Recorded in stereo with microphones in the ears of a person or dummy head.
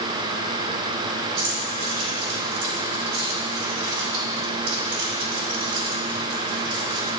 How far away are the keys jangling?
About 2 m.